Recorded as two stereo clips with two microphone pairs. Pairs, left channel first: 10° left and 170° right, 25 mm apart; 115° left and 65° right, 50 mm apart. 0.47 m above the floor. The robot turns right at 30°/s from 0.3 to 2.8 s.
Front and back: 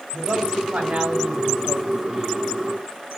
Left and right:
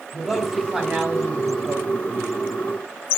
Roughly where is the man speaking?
Behind right.